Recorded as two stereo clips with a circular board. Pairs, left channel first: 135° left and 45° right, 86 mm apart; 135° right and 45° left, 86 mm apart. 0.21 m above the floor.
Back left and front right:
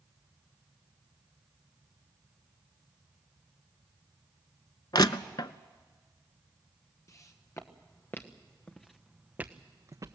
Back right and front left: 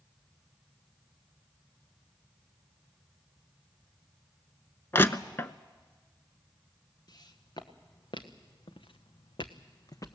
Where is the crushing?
165° left, 0.6 m.